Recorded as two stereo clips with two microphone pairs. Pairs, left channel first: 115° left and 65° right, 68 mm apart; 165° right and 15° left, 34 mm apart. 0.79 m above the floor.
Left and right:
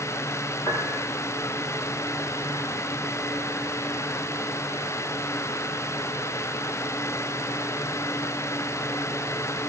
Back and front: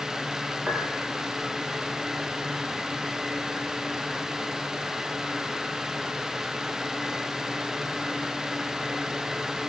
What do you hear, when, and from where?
0.7 s a piano: 85° left, 9 m